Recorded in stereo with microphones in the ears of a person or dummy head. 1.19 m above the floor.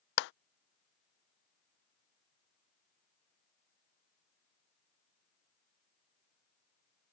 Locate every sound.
0.2 s a clap: 55° left (ahead or behind)